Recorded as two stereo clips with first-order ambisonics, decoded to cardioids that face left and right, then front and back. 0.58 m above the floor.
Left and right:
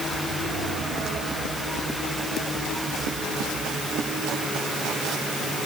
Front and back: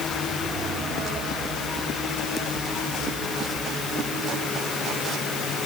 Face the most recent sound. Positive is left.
No sound to turn to.